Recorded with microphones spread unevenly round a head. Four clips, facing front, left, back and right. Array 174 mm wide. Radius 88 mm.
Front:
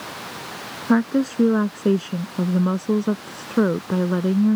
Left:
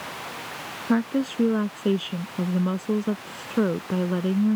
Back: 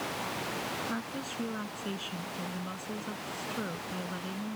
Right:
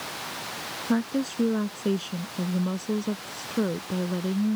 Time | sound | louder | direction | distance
0.9 | a woman speaking | left 3 dB, front 18 dB | 10° left | ?